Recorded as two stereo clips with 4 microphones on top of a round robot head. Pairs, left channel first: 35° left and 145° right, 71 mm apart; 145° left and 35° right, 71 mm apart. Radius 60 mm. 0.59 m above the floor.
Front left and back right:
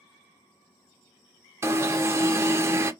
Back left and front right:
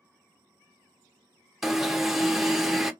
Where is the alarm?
120° right, 0.8 m.